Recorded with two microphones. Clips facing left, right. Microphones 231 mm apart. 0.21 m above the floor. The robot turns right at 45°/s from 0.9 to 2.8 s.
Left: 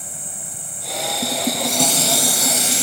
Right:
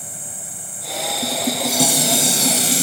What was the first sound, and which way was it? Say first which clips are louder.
An insect: even; 125° left.